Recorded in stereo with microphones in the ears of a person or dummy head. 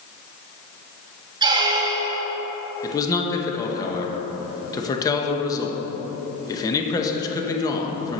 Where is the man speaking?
25° left (ahead or behind), 1.0 m.